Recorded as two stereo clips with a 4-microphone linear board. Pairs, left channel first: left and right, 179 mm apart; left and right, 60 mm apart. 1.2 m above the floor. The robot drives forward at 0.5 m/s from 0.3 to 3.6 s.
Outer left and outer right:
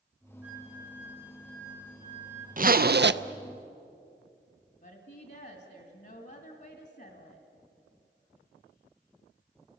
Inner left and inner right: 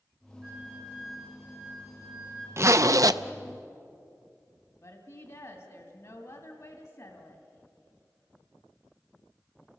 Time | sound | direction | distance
0.4 | a flute | 10° right (ahead or behind) | 4 m
2.6 | a zipper | 45° right (ahead or behind) | 0.6 m
4.8 | a woman speaking | 65° left (ahead or behind) | 2.5 m